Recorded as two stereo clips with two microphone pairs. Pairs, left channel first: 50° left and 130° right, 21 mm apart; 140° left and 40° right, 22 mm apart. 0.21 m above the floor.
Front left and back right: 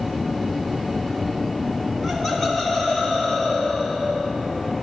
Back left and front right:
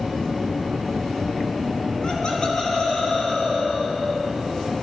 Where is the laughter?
125° left, 1.5 m; by 4.3 s 85° left, 3.5 m.